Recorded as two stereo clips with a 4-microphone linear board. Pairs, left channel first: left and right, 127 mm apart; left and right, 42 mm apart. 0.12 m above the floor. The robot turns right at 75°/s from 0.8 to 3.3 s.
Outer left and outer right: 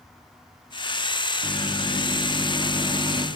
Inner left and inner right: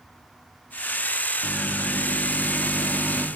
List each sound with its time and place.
1.4 s a microwave: 90° left, 3 m; by 3.3 s 130° right, 3 m